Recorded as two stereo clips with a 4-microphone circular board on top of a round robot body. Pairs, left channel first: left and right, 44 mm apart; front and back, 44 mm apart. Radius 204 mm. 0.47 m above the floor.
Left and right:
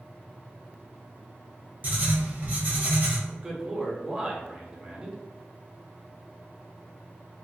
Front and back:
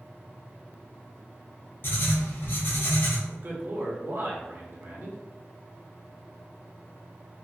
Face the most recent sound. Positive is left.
turn(degrees=-160)